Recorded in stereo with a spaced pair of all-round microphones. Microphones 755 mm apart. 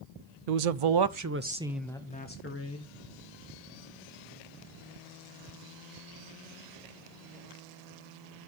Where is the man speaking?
65° right (ahead or behind), 0.6 m; by 2.9 s 20° left (ahead or behind), 1.2 m.